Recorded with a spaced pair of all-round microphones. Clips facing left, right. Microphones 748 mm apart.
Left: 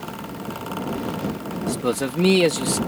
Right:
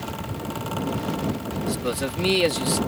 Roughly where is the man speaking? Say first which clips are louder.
Left 5 dB; left.